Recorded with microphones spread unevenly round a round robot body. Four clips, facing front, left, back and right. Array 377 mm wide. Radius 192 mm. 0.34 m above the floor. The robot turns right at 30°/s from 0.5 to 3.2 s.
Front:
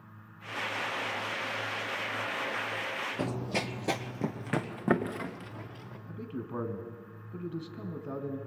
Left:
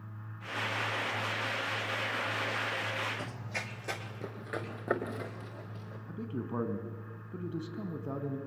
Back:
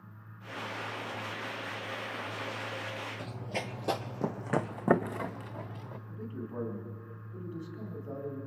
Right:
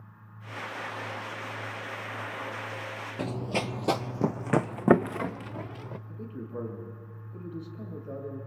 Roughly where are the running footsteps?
Ahead right.